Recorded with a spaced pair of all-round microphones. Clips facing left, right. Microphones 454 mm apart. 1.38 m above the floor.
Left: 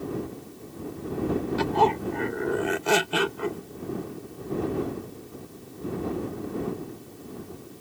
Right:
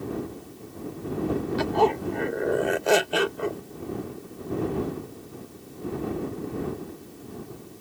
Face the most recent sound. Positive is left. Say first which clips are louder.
# right 4 dB
turn(degrees=20)  # may be behind; listen again after turning